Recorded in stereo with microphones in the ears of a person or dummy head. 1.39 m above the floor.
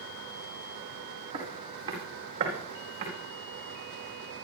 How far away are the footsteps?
About 4.5 m.